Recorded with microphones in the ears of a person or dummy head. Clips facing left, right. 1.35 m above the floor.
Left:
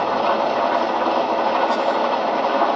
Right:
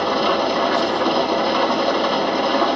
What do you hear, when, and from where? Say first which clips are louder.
0.0 s an engine running: even; 20° right (ahead or behind), 1.1 m